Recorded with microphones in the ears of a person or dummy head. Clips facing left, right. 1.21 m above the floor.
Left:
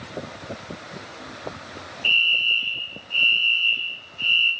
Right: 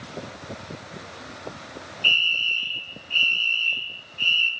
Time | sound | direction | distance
2.0 | a fire alarm | 60° right (ahead or behind) | 2.5 m